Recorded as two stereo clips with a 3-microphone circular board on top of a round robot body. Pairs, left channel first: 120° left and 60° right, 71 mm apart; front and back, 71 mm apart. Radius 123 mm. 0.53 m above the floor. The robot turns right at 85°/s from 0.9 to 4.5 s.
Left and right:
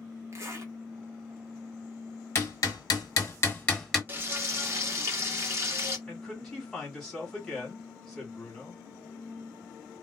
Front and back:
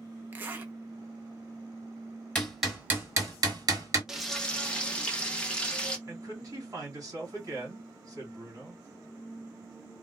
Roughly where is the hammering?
Left.